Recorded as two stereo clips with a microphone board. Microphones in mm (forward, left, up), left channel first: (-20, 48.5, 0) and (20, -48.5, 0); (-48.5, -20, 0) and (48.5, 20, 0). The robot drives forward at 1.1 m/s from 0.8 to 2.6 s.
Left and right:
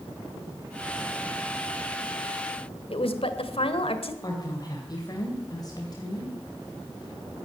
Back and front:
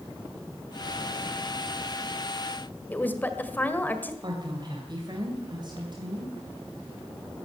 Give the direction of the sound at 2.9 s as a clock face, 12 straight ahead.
8 o'clock.